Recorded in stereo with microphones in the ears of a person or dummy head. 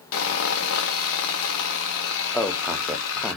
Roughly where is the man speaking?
Centre.